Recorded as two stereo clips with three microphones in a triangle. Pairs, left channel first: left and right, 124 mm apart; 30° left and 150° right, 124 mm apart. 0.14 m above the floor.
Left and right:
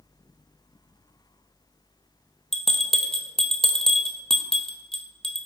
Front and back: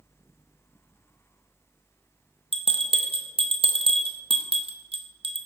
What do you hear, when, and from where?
2.5 s a bell: 175° left, 0.7 m